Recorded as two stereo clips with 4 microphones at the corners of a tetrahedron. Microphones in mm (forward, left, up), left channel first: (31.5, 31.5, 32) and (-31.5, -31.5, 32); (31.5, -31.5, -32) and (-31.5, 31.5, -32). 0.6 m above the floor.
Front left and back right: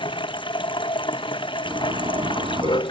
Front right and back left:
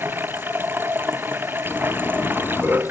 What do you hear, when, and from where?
0.0 s running water: 70° left
1.6 s a zipper: 115° right